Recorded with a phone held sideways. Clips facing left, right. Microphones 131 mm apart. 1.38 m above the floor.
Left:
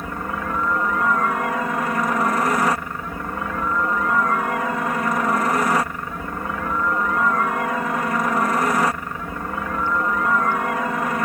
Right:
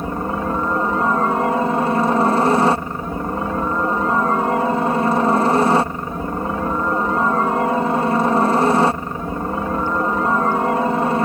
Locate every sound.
0.0 s a helicopter: 30° right (ahead or behind)